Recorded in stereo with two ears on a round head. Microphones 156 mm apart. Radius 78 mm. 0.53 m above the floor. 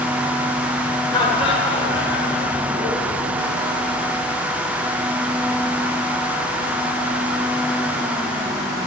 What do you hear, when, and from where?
1.1 s laughter: 30° left (ahead or behind), 1.5 m; by 3.2 s 40° left (ahead or behind), 3 m